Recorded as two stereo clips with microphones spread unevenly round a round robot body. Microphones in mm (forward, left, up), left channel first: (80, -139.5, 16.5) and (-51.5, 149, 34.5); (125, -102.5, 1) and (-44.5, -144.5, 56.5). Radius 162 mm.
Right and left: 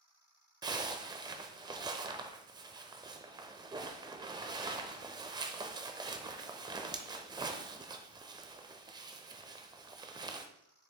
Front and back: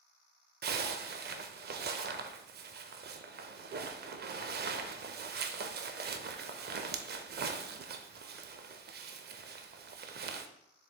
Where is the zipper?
170° right, 0.6 m.